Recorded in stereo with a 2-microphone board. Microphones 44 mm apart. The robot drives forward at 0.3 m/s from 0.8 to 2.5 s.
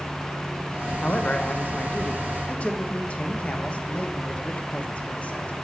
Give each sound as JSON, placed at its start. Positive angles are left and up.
{"t": 1.0, "sound": "a man speaking", "side_deg": 40, "distance_m": 0.9}